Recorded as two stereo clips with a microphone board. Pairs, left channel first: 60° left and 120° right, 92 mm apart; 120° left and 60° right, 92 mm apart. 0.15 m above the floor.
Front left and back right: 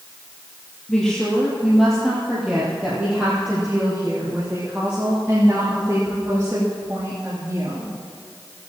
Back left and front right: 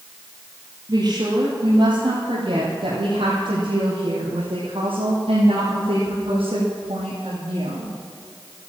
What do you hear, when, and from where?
0.9 s a woman speaking: 25° right, 3 m; by 7.9 s 60° right, 6.5 m